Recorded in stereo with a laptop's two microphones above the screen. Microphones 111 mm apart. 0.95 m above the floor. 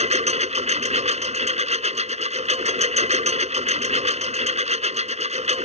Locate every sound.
0.0 s a lawn mower: 80° right